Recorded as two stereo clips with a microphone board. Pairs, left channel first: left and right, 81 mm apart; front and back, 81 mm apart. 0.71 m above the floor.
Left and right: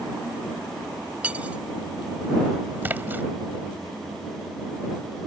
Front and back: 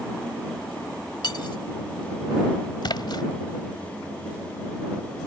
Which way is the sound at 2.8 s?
25° right.